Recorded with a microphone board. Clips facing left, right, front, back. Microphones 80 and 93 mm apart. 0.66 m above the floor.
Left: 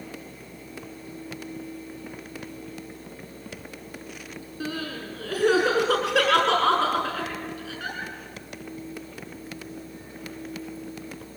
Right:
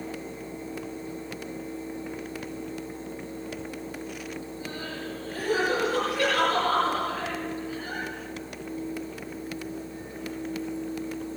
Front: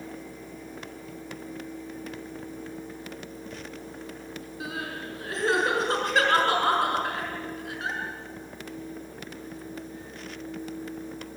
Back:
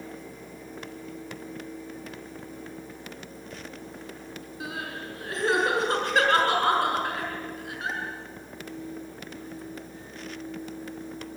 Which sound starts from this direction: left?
Crying, at 4.6 s.